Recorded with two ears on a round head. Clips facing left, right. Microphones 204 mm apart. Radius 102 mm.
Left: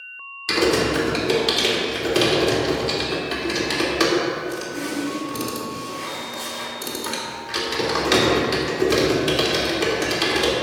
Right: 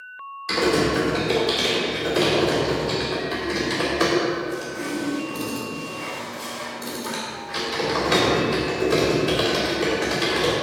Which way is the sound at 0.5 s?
50° left (ahead or behind).